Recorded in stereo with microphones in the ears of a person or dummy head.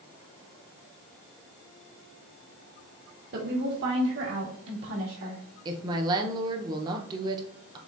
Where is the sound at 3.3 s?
65° right (ahead or behind), 1.4 m; by 5.4 s 80° right, 3 m.